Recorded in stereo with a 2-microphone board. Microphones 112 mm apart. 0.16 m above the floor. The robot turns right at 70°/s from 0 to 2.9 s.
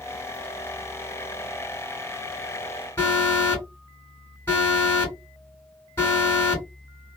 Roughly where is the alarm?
Left.